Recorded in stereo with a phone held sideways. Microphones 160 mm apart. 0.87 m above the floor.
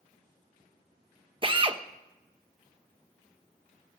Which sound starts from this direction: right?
A drill, at 1.4 s.